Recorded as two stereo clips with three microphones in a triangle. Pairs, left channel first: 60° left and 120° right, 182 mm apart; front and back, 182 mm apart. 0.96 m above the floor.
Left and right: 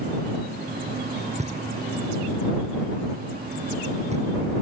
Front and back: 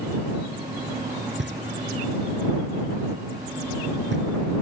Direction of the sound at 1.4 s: 175° right.